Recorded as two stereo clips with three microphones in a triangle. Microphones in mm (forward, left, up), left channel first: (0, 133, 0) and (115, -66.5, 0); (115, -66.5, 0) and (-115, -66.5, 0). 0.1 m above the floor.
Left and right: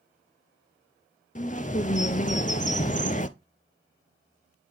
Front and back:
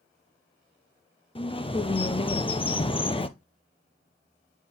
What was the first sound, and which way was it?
A bird, 60° left.